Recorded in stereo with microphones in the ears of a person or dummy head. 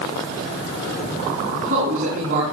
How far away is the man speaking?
About 3.5 m.